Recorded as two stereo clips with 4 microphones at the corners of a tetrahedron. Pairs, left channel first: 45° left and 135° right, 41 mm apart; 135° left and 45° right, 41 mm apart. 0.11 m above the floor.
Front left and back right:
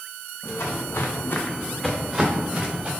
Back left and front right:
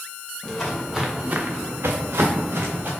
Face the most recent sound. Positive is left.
turn(degrees=-75)